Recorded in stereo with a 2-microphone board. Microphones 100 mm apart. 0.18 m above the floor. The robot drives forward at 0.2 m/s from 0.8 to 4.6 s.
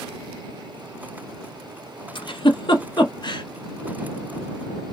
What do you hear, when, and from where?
2.1 s a giggle: 55° left (ahead or behind), 0.8 m; by 3.4 s 50° left (ahead or behind), 0.9 m